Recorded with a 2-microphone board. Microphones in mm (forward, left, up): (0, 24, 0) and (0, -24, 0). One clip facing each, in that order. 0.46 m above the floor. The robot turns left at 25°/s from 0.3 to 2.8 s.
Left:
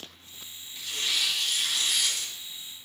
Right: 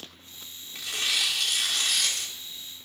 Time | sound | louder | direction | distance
0.8 | tearing paper | right 2 dB | 85° right | 1.1 m